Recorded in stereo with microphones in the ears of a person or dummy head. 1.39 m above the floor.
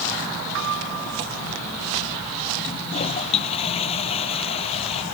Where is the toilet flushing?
35° left (ahead or behind).